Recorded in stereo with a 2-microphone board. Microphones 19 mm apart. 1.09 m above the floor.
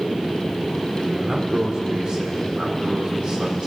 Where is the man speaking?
50° right (ahead or behind), 3 m.